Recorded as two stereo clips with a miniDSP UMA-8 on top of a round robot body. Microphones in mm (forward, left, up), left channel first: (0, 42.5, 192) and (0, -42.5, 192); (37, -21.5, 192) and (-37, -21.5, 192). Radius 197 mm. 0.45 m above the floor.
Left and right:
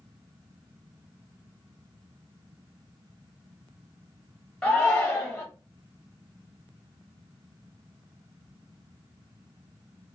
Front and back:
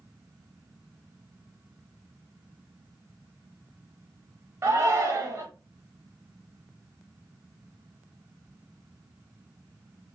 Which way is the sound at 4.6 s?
170° left.